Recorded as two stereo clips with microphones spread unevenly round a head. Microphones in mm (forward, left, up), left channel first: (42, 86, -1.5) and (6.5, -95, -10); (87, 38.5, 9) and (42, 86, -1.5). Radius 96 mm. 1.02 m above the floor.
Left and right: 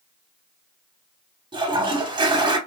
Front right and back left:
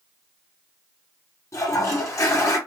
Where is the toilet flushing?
35° right, 0.8 m.